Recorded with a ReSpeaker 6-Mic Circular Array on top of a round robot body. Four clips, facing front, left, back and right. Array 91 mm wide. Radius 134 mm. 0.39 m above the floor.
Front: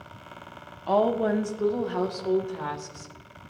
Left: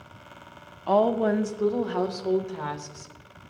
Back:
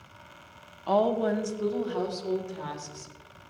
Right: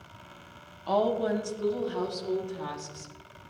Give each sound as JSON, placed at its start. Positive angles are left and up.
{"t": 0.9, "sound": "a woman speaking", "azimuth_deg": 80, "distance_m": 1.1}